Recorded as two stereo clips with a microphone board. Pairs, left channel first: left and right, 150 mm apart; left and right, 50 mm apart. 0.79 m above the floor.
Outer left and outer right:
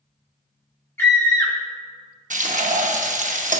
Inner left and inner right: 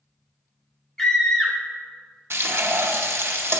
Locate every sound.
1.0 s a scream: 15° left (ahead or behind), 0.9 m
2.3 s frying: 55° right (ahead or behind), 0.7 m